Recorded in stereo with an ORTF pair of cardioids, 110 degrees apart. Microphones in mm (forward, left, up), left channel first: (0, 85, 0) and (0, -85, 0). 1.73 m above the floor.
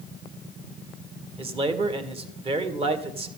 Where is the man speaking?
35° right, 1.8 m.